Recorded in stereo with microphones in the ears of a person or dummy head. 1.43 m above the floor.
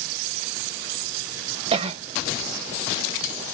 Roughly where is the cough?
Right.